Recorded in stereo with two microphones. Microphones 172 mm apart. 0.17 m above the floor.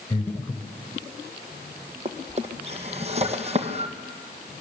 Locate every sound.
0.1 s breathing: 15° left (ahead or behind), 2 m
2.0 s a drawer: 40° right (ahead or behind), 2 m